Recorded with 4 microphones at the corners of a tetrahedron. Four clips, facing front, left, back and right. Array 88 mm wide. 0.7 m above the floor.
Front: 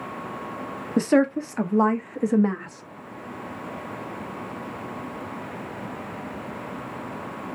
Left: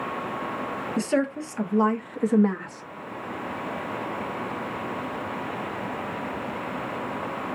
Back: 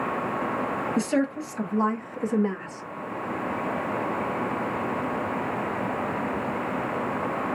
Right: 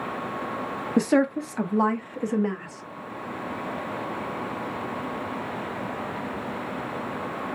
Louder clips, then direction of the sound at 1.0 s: Right 4 dB, front 8 dB; 40° right.